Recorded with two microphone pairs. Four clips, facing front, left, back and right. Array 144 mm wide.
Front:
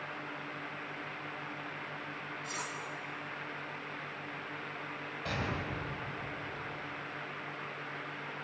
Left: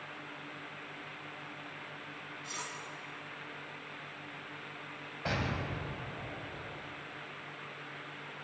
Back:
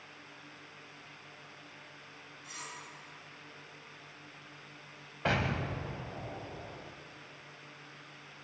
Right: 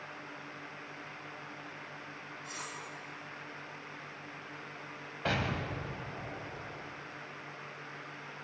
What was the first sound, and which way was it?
Cutlery clinking, 30° left.